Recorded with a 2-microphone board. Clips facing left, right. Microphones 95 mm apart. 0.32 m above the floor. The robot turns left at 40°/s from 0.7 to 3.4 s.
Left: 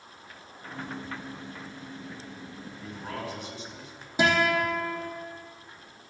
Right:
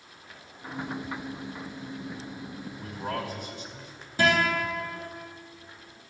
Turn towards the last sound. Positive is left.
turn(degrees=15)  # may be behind; listen again after turning